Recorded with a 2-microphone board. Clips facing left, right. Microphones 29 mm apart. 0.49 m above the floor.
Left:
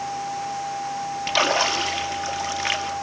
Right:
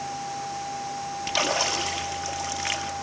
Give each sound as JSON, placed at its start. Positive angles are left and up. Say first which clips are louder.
{"t": 1.3, "sound": "a splash", "louder": "left 5 dB", "side_deg": 20, "distance_m": 2.0}